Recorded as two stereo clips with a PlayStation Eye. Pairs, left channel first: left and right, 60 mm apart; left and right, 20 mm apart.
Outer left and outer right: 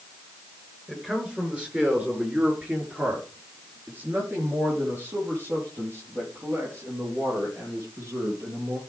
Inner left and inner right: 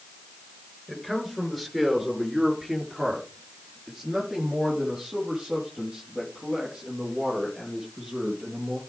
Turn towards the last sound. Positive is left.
turn(degrees=-50)  # may be behind; listen again after turning